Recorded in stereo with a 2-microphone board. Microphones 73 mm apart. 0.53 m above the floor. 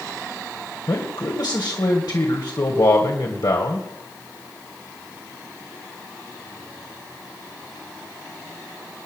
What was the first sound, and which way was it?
A man speaking, 70° left (ahead or behind).